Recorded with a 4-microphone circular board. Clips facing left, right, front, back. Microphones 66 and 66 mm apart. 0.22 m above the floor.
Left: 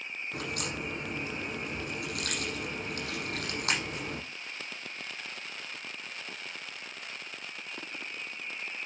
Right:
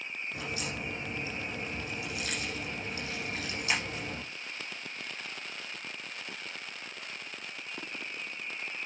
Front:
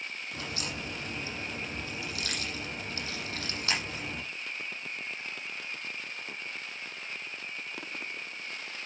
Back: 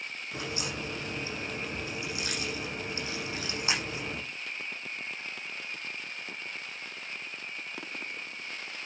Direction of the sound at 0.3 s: 110° left.